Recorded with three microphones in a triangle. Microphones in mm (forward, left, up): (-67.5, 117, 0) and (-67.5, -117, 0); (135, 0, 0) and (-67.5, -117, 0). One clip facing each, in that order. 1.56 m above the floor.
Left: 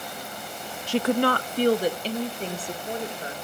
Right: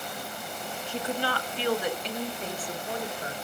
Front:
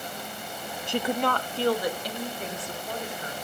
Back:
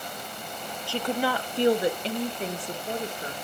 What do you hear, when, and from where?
0.9 s a woman speaking: 95° left, 0.5 m; by 3.4 s 160° left, 3 m